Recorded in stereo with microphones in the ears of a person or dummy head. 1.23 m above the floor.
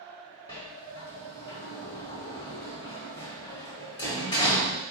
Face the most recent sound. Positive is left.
turn(degrees=25)  # may be behind; listen again after turning